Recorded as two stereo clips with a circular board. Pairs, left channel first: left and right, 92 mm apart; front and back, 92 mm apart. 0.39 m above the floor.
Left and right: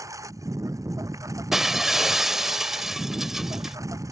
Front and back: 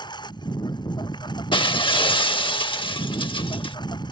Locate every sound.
0.0 s a lawn mower: 35° right
1.5 s breaking glass: 5° right